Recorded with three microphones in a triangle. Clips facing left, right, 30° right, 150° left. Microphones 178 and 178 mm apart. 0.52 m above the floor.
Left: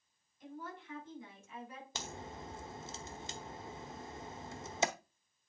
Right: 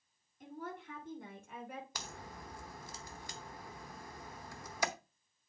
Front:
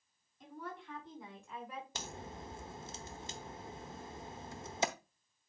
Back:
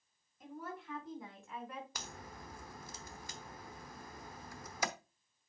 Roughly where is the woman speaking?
Behind right.